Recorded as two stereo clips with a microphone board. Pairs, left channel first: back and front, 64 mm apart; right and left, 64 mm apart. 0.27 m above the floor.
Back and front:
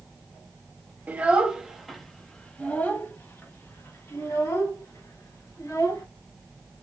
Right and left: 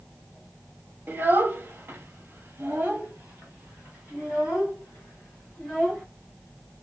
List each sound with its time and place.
1.1 s a child speaking: 50° left, 0.9 m; by 6.0 s 160° left, 2.5 m